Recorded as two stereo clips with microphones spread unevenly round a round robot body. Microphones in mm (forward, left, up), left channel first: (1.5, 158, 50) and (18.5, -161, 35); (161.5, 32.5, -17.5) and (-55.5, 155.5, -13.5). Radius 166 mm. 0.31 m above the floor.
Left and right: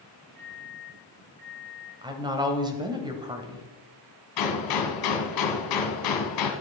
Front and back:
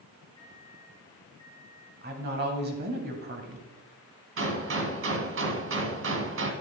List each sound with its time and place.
0.4 s a microwave: 105° right, 4 m
2.0 s a woman speaking: 160° right, 1.5 m
4.4 s a gunshot: 115° left, 2 m